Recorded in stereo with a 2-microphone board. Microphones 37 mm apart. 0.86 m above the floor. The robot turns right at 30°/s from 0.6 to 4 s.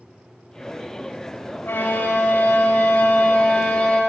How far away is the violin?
About 3.5 m.